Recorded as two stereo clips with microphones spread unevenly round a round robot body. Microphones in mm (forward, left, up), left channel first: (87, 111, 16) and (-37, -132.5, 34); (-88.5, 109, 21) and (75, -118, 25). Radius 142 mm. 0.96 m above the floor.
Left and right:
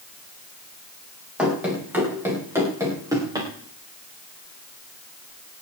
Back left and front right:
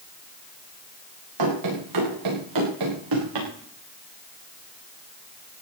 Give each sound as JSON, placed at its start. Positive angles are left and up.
{"t": 1.4, "sound": "running footsteps", "azimuth_deg": -30, "distance_m": 8.0}